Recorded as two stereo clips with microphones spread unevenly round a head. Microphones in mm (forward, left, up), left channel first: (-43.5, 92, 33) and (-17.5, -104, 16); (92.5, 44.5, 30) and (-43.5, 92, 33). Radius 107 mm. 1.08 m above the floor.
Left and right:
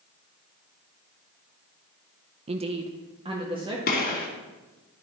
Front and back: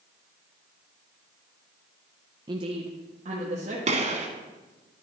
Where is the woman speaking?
135° right, 0.5 m; by 3.8 s 145° right, 1.7 m.